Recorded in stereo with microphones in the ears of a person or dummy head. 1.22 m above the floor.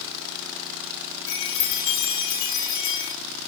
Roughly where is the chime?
Left.